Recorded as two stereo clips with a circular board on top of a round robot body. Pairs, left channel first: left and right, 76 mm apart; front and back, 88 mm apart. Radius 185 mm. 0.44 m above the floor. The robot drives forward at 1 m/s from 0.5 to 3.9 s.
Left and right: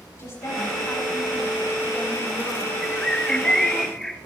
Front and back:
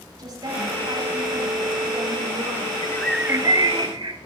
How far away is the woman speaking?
About 6.5 m.